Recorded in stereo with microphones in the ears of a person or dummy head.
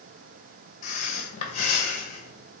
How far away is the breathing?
About 0.8 m.